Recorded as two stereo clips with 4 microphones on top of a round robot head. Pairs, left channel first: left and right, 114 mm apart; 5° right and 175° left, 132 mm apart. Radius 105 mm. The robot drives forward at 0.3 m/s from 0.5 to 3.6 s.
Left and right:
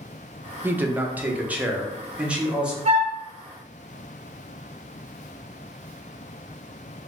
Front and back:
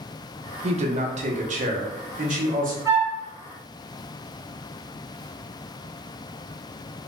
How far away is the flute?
About 0.9 m.